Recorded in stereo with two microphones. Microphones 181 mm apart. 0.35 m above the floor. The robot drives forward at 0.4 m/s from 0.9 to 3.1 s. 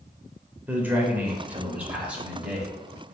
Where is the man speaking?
10° right (ahead or behind), 1.0 m; by 3.1 s 5° right (ahead or behind), 1.5 m.